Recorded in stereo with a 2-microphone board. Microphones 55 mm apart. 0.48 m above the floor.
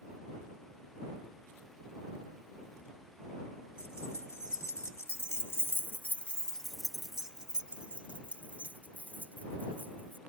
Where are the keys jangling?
60° left (ahead or behind); by 10.2 s 40° right (ahead or behind).